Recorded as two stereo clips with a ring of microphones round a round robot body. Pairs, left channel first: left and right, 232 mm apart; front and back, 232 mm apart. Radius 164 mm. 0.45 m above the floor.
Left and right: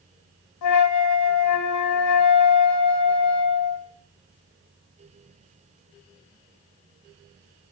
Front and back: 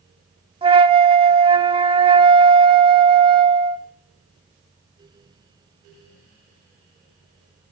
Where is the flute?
110° left, 0.9 m.